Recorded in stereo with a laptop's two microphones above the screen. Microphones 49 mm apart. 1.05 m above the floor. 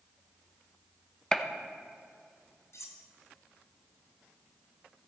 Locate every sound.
1.3 s a gunshot: 15° left (ahead or behind), 0.7 m
2.7 s cutlery clinking: 70° left (ahead or behind), 0.8 m